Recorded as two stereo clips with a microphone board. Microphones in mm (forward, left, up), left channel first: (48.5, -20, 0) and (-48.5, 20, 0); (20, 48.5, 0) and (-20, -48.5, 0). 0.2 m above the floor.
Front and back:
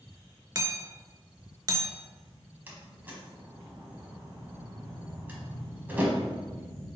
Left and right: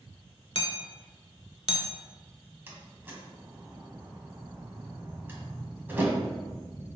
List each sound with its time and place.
0.6 s hammering: 100° left, 0.6 m
2.7 s a door slam: 155° right, 1.0 m